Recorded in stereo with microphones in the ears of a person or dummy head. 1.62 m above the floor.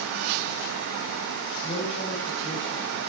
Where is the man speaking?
45° left (ahead or behind), 4.5 m; by 3.0 s 15° left (ahead or behind), 3.5 m.